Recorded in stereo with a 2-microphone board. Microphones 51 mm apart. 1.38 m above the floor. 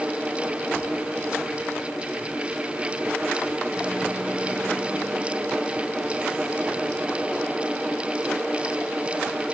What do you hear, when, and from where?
Only background noise.